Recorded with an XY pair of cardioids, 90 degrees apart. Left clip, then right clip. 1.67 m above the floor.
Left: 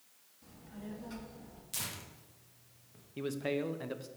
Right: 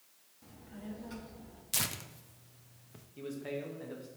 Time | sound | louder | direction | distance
0.4 | a child speaking | right 1 dB | 15° right | 2.5 m
1.7 | tearing paper | right 6 dB | 55° right | 0.9 m
3.2 | a man speaking | left 5 dB | 65° left | 1.0 m